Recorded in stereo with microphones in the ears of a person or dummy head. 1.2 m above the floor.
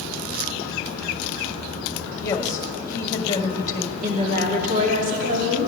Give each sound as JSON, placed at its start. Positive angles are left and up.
{"t": 2.2, "sound": "a woman speaking", "side_deg": 20, "distance_m": 1.6}
{"t": 4.0, "sound": "a woman speaking", "side_deg": -45, "distance_m": 2.5}